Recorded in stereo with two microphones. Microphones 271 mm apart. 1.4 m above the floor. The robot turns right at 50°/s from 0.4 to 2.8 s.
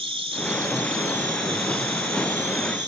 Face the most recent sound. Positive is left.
turn(degrees=-40)